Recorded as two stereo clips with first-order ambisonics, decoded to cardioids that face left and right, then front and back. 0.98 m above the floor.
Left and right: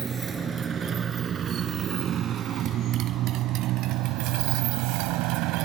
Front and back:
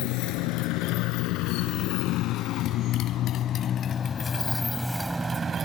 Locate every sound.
0.0 s a motorcycle: 20° right; by 5.7 s 110° right